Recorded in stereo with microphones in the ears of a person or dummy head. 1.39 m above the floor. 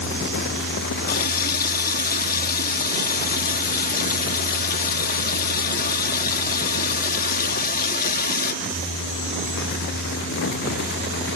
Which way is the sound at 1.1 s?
50° left (ahead or behind).